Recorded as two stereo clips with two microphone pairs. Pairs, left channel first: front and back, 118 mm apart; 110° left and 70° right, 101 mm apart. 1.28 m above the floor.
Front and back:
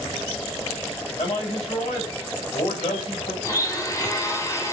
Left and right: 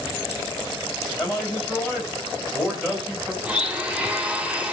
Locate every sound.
1.2 s a man speaking: 20° left, 3 m
3.4 s a blender: 10° right, 0.9 m